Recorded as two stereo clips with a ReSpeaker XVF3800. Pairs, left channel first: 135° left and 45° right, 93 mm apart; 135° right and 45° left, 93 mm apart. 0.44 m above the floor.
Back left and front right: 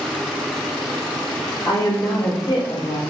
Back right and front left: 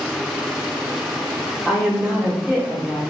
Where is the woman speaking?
115° left, 1.0 m.